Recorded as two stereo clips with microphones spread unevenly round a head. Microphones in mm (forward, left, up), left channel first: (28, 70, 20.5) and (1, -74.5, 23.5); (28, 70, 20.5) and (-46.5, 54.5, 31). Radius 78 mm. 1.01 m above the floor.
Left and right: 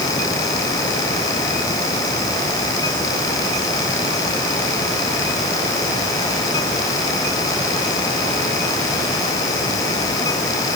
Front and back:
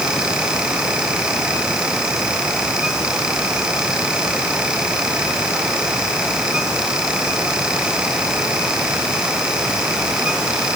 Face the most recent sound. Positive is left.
No sound to turn to.